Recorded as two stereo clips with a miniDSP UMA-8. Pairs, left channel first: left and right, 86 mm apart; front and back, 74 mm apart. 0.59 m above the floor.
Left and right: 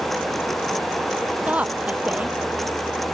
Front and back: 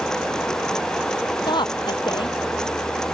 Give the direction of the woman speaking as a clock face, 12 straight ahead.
1 o'clock.